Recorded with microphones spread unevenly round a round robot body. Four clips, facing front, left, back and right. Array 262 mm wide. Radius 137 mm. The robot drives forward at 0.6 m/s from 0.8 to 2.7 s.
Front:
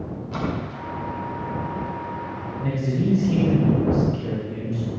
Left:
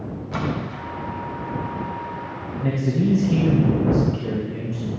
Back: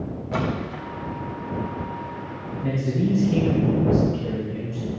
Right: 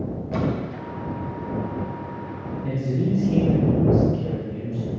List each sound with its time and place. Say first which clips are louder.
0.3 s a splash: right 1 dB, back 2 dB; 150° right, 1.3 m
2.6 s a man speaking: left 4 dB, back 1 dB; 90° left, 3 m; by 4.9 s 95° left, 3 m